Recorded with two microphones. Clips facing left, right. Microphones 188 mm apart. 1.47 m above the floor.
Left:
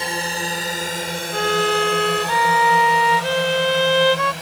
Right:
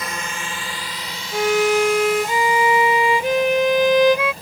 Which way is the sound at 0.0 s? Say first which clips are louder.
Left 4 dB; 30° left (ahead or behind).